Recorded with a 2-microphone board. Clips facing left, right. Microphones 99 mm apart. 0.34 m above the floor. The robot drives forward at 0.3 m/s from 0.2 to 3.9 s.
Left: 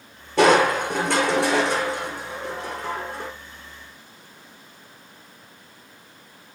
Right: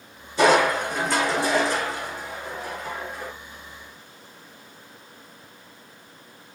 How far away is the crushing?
About 5 m.